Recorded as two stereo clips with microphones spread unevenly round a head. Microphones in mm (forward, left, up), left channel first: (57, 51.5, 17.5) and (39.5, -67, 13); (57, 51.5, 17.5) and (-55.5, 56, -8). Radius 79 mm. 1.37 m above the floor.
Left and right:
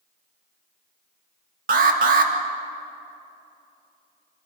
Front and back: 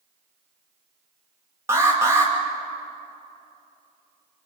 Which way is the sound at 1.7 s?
110° right.